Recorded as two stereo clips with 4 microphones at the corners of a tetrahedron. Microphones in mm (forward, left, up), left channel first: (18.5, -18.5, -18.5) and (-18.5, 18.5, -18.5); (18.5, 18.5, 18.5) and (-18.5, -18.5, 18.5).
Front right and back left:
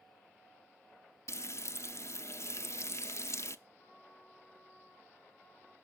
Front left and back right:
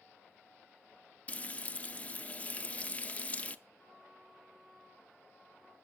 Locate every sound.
1.3 s frying: 20° right, 0.6 m
3.8 s a trumpet: 45° right, 8 m